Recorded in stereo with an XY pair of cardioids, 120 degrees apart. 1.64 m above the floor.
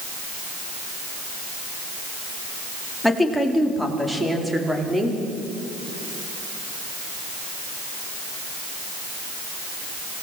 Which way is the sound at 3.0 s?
5° left.